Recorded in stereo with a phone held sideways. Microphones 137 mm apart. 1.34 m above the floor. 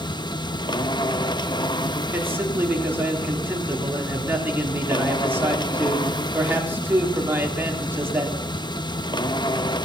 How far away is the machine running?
About 0.8 m.